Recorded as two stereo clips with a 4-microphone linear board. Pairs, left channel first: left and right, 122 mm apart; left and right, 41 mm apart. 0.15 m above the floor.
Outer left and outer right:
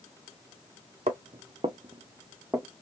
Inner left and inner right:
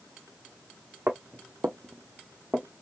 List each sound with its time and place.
1.1 s footsteps: 80° right, 0.7 m; by 2.8 s 10° right (ahead or behind), 0.7 m